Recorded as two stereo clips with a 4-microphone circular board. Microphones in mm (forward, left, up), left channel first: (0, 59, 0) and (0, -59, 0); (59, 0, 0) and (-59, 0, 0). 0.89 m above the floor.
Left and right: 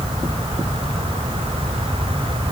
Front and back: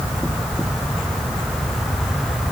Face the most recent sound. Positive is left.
No sound to turn to.